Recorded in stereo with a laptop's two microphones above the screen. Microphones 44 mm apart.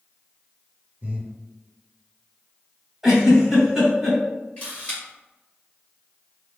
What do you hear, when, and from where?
1.0 s breathing: 40° right (ahead or behind), 0.7 m
3.0 s a giggle: 5° right (ahead or behind), 1.5 m
4.6 s a camera shutter: 25° left (ahead or behind), 1.5 m